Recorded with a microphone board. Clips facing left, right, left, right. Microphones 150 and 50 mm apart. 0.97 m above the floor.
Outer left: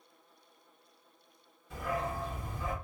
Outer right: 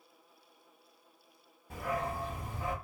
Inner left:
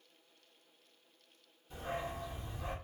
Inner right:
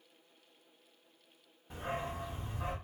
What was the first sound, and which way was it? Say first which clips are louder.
A dog barking: even, inner right 1 dB; 60° right (ahead or behind).